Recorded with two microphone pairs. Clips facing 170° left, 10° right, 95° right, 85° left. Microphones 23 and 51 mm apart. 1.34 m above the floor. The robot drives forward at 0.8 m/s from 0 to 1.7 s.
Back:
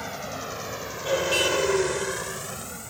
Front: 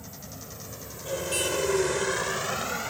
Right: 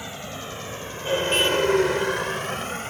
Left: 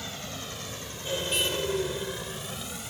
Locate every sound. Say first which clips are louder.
0.0 s a vehicle: back 11 dB, right 4 dB; 165° right; by 2.9 s 55° right